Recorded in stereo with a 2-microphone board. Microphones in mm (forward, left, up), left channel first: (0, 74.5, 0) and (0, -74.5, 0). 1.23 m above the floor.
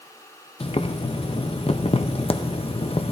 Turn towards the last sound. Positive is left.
turn(degrees=40)  # may be behind; listen again after turning